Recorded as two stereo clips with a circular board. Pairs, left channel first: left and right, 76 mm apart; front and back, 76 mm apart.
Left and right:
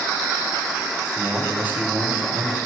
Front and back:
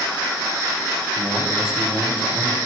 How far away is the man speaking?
About 1.0 m.